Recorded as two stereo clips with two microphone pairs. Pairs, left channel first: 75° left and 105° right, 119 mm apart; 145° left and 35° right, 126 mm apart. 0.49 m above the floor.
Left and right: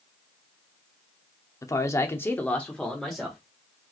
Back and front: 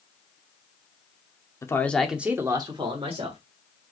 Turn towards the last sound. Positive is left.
turn(degrees=-15)